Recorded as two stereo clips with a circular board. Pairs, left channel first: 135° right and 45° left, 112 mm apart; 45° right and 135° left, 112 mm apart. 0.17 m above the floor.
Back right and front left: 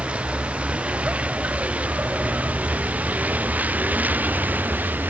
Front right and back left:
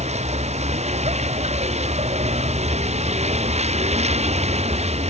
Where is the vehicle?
125° left; by 5.1 s 120° left.